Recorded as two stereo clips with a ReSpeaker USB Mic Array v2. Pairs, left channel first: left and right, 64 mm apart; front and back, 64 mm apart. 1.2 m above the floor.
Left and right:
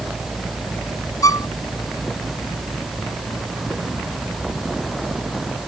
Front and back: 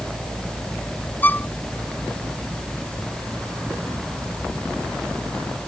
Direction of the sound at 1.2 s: 65° left.